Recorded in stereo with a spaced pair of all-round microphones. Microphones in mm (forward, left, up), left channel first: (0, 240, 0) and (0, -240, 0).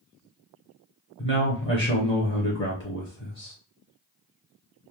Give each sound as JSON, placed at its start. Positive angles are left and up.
{"t": 1.2, "sound": "a man speaking", "side_deg": 25, "distance_m": 0.8}